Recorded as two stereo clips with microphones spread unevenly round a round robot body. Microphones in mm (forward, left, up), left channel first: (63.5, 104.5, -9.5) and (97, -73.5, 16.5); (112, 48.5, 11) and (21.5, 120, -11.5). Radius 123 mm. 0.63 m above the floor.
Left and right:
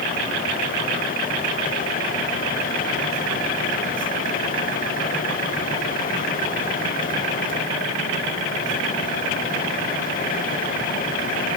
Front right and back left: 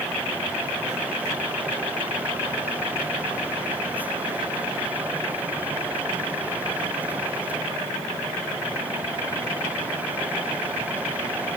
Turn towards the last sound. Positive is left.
No sound to turn to.